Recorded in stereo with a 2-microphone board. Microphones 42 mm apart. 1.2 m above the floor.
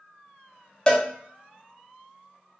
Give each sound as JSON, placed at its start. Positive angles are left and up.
{"t": 0.9, "sound": "a cowbell", "side_deg": 25, "distance_m": 0.6}